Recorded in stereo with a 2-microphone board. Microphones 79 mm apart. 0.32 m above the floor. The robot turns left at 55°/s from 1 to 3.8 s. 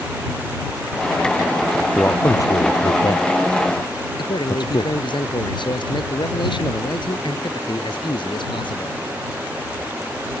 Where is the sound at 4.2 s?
75° left (ahead or behind).